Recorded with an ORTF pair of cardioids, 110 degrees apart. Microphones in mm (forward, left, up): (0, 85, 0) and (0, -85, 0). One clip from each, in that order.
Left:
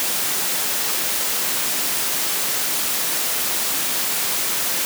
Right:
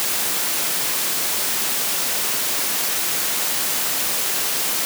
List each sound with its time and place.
Only background noise.